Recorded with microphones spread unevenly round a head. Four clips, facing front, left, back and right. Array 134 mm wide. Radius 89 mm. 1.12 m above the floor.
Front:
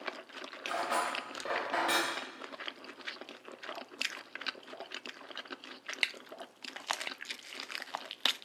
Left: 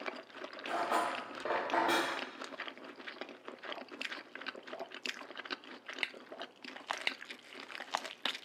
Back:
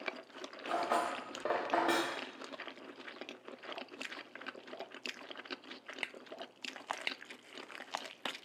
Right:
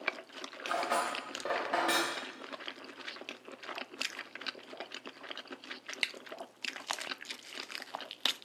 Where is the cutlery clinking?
175° right, 0.5 m.